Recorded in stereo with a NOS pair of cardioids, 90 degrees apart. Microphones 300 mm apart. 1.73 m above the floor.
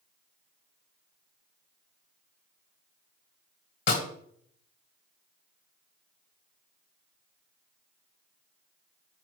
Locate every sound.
3.9 s a snare drum: 55° left, 1.7 m